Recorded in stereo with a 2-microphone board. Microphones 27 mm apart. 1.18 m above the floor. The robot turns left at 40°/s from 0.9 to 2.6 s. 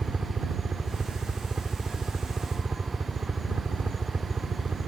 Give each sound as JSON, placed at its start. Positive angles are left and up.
{"t": 0.0, "sound": "a helicopter", "azimuth_deg": -50}